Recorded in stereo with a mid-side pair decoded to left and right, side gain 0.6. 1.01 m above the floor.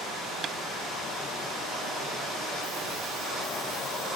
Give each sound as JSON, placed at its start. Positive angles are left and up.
{"t": 0.4, "sound": "tapping", "azimuth_deg": -40}